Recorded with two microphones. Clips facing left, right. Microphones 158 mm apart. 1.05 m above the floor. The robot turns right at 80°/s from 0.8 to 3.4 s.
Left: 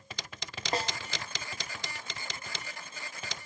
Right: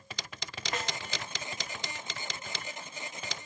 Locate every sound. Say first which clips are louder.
0.7 s a snare drum: left 4 dB; 35° left (ahead or behind), 0.8 m; by 1.0 s 25° left (ahead or behind), 0.8 m